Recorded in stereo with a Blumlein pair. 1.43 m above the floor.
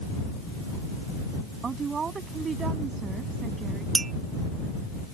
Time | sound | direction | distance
1.6 | a woman speaking | 20° right | ?
4.0 | a clink | 15° right | ?